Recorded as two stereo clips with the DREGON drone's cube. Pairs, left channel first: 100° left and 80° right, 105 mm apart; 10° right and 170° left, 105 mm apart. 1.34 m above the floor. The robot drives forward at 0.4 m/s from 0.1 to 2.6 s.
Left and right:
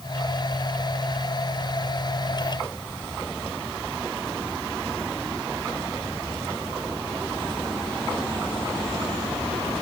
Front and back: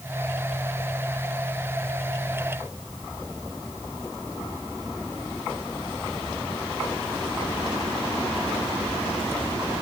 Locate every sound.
Only background noise.